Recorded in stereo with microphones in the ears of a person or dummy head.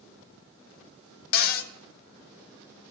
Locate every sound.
1.3 s a cupboard door: 50° left (ahead or behind), 0.6 m